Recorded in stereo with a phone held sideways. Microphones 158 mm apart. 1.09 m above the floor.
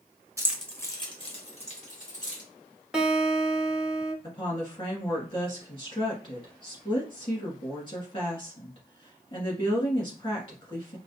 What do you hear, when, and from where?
0.4 s keys jangling: 20° right (ahead or behind), 0.7 m; by 2.4 s 55° left (ahead or behind), 2.5 m
2.9 s a guitar: 5° right (ahead or behind), 1.0 m
4.2 s a woman speaking: 35° left (ahead or behind), 1.8 m